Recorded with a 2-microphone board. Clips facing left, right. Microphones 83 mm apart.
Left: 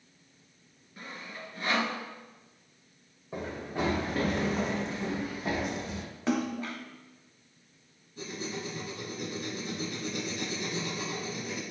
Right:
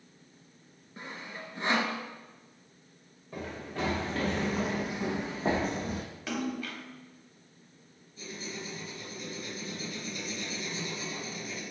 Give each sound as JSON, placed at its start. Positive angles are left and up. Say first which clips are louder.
{"t": 1.0, "sound": "sawing", "louder": "right 1 dB", "side_deg": -25, "distance_m": 0.9}
{"t": 3.3, "sound": "running footsteps", "louder": "left 3 dB", "side_deg": 20, "distance_m": 1.5}
{"t": 6.3, "sound": "a splash", "louder": "left 5 dB", "side_deg": 30, "distance_m": 0.6}
{"t": 8.2, "sound": "writing", "louder": "left 4 dB", "side_deg": 70, "distance_m": 1.1}